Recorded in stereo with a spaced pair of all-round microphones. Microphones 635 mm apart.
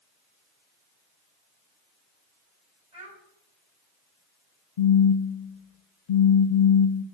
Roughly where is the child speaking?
Right.